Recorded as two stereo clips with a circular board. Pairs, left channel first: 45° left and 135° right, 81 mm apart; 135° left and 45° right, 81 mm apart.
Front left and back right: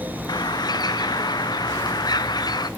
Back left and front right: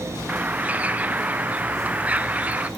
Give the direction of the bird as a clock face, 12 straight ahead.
11 o'clock.